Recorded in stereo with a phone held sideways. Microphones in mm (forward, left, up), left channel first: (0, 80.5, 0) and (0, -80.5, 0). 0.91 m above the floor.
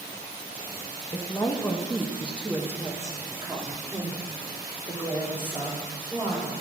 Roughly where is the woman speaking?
Left.